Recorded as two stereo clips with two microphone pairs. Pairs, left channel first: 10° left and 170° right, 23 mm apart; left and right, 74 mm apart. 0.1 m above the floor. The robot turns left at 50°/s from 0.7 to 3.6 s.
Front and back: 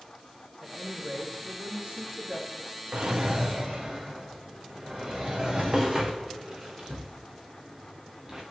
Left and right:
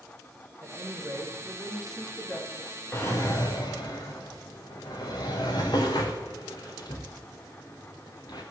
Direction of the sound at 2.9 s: 150° left.